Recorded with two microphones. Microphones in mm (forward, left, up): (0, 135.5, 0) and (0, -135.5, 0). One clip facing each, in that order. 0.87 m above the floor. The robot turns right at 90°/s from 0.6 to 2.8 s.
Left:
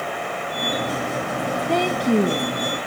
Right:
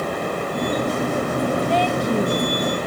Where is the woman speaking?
105° left, 1.2 m; by 2.8 s 155° right, 1.2 m.